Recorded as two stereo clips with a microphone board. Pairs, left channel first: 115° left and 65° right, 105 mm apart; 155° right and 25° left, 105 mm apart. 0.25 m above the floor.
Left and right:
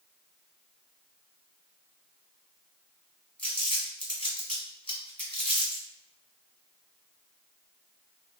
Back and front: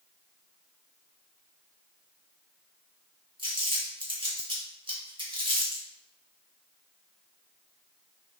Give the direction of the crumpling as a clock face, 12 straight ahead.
11 o'clock.